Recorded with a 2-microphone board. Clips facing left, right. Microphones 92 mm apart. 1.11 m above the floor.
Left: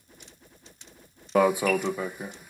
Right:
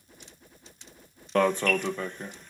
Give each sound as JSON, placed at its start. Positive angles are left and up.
{"t": 1.4, "sound": "an alarm", "side_deg": 10}